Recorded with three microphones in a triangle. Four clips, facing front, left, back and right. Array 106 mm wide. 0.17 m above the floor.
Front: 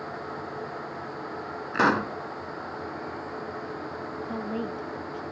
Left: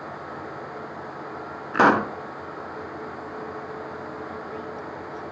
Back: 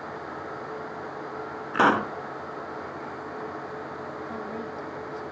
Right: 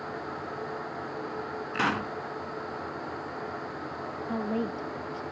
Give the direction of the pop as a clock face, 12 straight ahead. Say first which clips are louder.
Left 12 dB, back 2 dB; 9 o'clock.